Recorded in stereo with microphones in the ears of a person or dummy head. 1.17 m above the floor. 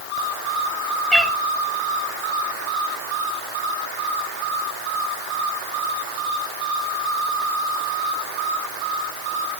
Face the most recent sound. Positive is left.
turn(degrees=0)  # may be behind; listen again after turning